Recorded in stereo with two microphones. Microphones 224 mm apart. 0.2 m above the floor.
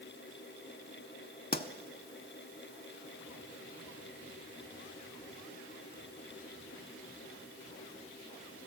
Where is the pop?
40° left (ahead or behind), 0.5 m.